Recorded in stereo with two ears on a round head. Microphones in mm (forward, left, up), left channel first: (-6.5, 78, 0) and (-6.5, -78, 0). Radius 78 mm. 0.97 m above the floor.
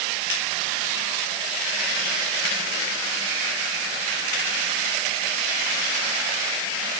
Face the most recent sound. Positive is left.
No sound to turn to.